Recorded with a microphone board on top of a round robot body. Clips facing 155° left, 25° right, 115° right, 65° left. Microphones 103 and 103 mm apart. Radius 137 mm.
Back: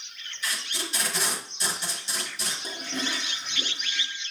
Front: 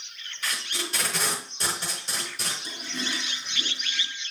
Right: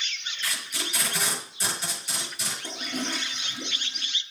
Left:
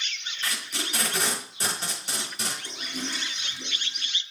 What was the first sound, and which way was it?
Tape being pulled, 25° left.